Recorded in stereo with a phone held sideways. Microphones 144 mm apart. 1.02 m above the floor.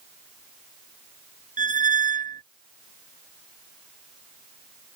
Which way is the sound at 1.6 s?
65° right (ahead or behind).